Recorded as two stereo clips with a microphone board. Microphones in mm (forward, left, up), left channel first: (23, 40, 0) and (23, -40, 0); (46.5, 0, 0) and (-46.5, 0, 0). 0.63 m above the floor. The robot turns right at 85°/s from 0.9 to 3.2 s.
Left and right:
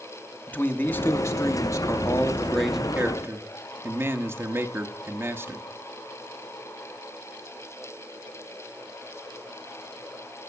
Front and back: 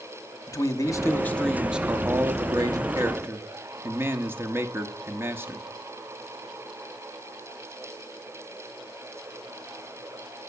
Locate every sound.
0.5 s a man speaking: 35° left, 1.0 m; by 5.7 s 130° right, 1.0 m